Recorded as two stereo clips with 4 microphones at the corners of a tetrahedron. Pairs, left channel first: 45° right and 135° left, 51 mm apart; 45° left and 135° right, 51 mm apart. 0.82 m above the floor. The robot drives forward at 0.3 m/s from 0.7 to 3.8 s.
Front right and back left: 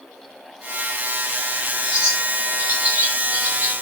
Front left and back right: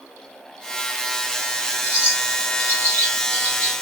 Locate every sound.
1.8 s a bird: 80° left, 1.6 m; by 3.7 s 105° left, 1.6 m